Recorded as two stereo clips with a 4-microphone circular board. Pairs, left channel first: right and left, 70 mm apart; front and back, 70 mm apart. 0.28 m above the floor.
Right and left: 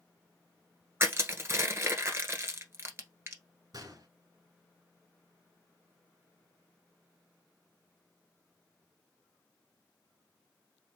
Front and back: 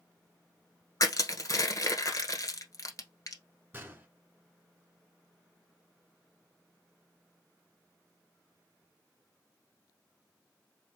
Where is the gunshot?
120° left, 1.2 m.